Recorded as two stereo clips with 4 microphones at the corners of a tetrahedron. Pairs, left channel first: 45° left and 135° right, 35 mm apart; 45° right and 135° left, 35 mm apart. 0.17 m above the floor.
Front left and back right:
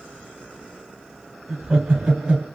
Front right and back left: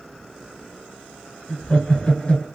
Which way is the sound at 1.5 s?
85° right.